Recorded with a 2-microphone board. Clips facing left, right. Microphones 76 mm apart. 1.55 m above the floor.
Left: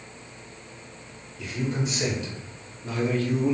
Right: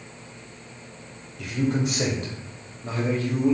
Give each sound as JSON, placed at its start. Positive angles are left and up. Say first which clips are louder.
{"t": 1.4, "sound": "a man speaking", "louder": "right 4 dB", "side_deg": -80, "distance_m": 1.2}